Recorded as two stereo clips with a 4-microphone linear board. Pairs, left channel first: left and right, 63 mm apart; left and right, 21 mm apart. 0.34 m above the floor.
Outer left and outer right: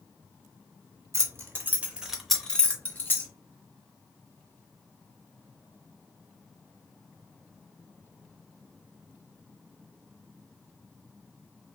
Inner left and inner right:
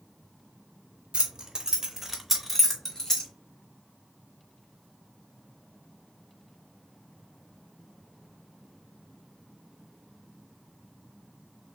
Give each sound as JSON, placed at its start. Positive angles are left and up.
{"t": 1.1, "sound": "keys jangling", "side_deg": -45, "distance_m": 0.8}